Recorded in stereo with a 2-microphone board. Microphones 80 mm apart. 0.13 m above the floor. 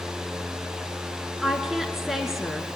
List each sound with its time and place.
1.4 s a woman speaking: 5° right (ahead or behind), 1.9 m